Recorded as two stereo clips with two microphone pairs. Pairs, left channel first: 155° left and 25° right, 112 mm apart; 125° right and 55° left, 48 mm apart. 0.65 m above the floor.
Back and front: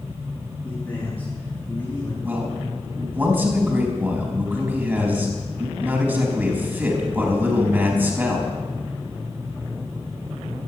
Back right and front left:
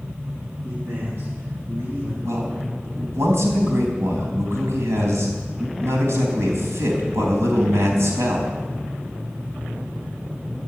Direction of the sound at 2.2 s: 45° left.